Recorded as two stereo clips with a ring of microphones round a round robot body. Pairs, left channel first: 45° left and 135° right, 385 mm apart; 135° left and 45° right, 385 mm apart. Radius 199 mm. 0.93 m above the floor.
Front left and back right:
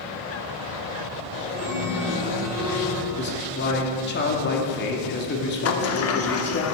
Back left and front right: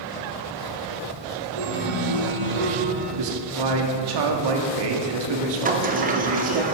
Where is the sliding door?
15° left, 1.1 m.